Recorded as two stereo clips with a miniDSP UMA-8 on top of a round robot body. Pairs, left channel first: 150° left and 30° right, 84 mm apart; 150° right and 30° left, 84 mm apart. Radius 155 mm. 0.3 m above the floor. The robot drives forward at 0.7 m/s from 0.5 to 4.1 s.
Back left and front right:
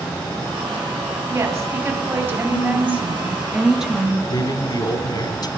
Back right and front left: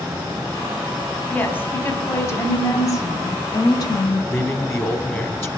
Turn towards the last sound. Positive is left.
turn(degrees=155)